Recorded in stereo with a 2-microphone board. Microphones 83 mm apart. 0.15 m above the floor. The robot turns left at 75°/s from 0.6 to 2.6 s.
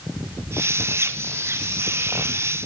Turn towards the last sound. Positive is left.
No sound to turn to.